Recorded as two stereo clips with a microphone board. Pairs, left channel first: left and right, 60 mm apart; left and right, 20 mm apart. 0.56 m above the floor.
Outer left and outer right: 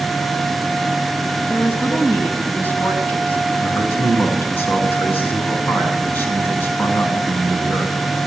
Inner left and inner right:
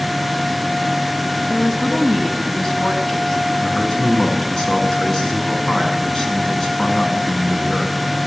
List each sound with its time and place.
1.5 s a woman speaking: 30° left (ahead or behind), 4.5 m
3.6 s a man speaking: 35° left (ahead or behind), 6.5 m